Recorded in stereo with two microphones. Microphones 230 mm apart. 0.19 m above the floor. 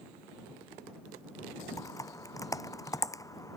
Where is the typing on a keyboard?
15° left (ahead or behind).